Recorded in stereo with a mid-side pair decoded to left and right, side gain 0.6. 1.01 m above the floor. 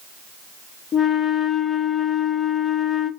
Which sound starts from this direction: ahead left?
A flute, at 0.9 s.